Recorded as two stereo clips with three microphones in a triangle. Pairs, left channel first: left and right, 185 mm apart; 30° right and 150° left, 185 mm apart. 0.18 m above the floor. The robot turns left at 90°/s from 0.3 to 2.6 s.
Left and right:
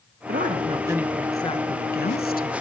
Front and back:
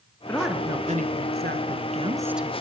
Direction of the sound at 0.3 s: 110° right.